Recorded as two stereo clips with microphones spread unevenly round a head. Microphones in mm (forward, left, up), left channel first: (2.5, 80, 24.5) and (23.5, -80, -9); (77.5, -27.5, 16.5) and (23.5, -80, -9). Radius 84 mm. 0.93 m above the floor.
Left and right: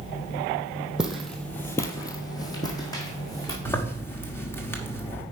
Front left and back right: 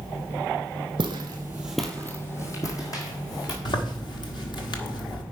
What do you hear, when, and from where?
1.0 s footsteps: 175° right, 1.4 m; by 3.5 s 35° left, 3 m
3.6 s a zipper: 20° left, 1.4 m